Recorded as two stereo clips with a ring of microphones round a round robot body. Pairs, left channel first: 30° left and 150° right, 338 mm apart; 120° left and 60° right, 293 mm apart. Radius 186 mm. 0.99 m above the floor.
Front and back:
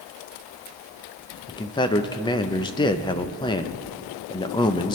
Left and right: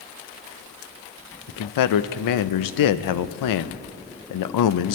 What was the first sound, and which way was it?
A man speaking, 105° left.